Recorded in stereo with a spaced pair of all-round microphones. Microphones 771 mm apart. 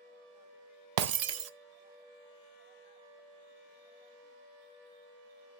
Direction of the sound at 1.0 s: 60° right (ahead or behind).